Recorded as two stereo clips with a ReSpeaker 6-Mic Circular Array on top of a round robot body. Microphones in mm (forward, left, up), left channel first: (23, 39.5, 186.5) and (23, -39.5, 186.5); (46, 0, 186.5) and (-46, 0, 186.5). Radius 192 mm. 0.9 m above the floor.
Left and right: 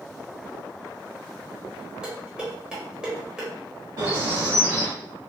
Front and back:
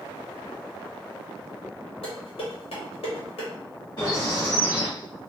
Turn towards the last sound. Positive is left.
turn(degrees=-45)